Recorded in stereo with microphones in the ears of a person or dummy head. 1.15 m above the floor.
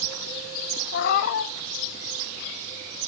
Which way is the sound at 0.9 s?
45° left (ahead or behind).